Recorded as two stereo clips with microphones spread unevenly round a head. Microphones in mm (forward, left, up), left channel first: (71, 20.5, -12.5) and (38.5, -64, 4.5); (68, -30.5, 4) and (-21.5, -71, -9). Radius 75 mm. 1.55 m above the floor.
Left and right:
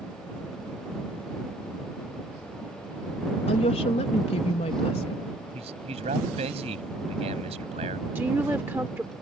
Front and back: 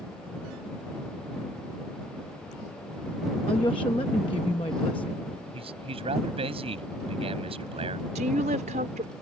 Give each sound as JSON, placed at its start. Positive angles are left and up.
{"t": 3.5, "sound": "a woman speaking", "azimuth_deg": 85}
{"t": 5.5, "sound": "a man speaking", "azimuth_deg": -130}
{"t": 8.2, "sound": "a woman speaking", "azimuth_deg": 175}